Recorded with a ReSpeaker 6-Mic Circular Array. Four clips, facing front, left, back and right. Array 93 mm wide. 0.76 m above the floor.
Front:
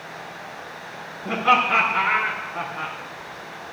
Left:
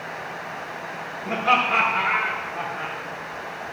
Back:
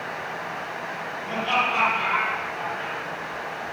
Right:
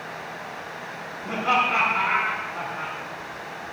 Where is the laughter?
Straight ahead, 8.5 m; by 3.0 s 10° right, 7.5 m.